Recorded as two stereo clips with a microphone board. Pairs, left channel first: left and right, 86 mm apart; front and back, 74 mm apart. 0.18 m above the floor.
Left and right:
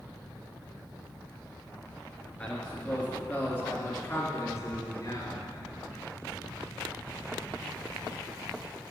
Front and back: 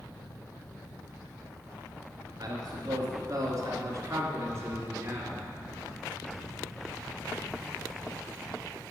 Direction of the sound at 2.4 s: 170° left.